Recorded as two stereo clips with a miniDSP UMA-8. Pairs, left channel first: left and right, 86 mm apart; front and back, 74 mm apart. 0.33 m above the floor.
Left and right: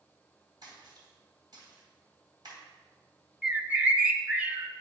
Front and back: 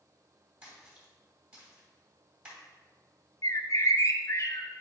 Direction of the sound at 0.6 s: 110° right.